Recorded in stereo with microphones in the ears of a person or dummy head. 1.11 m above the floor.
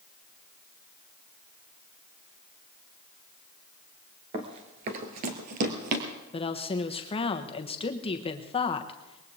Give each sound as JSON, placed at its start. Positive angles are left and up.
{"t": 4.3, "sound": "running footsteps", "side_deg": -25, "distance_m": 1.1}
{"t": 6.3, "sound": "a woman speaking", "side_deg": 30, "distance_m": 1.1}